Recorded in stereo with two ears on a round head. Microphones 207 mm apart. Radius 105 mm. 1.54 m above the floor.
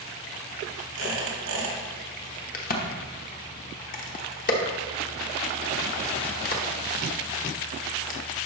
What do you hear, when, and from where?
0.9 s a squeak: 65° right (ahead or behind), 2 m
2.5 s a crack: 40° left (ahead or behind), 1.0 m